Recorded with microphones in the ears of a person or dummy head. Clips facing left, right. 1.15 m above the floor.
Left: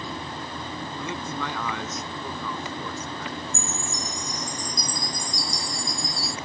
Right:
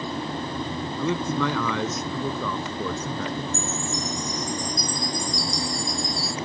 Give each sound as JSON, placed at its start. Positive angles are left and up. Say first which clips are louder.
{"t": 1.0, "sound": "a man speaking", "louder": "right 9 dB", "side_deg": -70}
{"t": 3.5, "sound": "a chime", "louder": "right 4 dB", "side_deg": 40}